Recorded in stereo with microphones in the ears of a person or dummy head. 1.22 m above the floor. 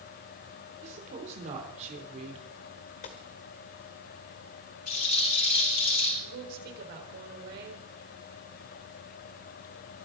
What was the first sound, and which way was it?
A woman speaking, 40° right (ahead or behind).